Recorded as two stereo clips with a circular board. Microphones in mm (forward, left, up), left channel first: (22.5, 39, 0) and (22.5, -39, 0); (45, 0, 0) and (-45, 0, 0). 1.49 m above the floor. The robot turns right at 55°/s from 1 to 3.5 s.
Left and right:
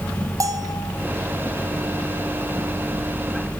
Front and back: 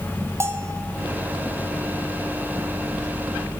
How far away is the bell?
About 0.8 m.